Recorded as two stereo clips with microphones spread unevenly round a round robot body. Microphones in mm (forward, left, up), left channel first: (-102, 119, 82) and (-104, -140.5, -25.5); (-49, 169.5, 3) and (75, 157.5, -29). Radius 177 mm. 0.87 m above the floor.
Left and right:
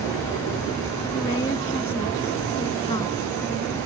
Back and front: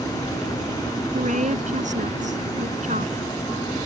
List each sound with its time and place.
1.1 s a woman speaking: 15° left